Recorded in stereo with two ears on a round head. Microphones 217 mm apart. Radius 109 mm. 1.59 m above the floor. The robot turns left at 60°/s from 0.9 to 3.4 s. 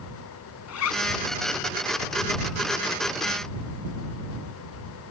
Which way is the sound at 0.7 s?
70° left (ahead or behind).